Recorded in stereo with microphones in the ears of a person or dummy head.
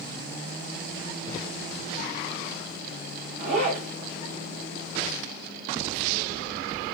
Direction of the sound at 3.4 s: 45° right (ahead or behind).